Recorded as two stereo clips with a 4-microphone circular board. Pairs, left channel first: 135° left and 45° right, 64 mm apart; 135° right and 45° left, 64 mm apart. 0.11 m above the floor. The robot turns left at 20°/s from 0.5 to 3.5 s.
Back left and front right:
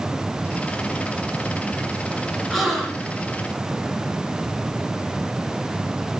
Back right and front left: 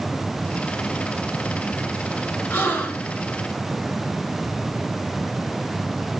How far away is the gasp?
About 1.7 m.